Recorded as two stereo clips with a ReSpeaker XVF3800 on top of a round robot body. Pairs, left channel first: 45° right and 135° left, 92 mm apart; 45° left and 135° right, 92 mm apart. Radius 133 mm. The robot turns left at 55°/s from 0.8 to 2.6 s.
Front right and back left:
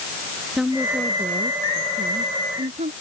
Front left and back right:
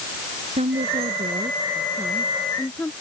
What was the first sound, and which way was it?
A woman speaking, 140° right.